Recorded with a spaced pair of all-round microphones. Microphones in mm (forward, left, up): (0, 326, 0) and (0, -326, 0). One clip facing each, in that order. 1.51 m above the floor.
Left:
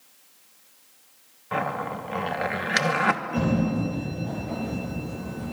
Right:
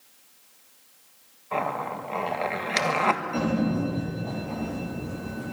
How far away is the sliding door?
About 9 m.